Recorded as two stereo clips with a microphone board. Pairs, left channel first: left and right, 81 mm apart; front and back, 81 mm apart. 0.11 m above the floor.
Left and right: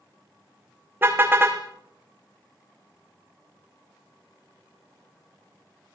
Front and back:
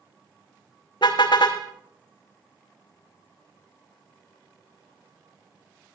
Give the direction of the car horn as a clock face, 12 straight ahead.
1 o'clock.